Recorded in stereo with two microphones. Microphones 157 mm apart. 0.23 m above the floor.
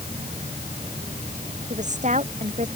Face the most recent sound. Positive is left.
turn(degrees=-50)  # may be behind; listen again after turning